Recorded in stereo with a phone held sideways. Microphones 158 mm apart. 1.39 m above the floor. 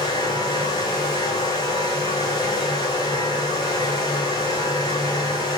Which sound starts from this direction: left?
A fan, at 0.0 s.